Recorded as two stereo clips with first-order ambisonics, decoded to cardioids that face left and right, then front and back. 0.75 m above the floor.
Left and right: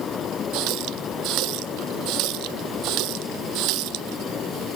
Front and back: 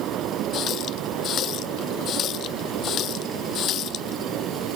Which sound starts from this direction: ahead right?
A running tap, at 0.5 s.